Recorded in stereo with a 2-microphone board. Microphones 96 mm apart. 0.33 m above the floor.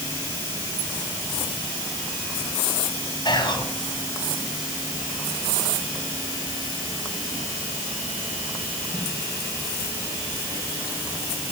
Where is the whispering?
50° left (ahead or behind), 2.5 m.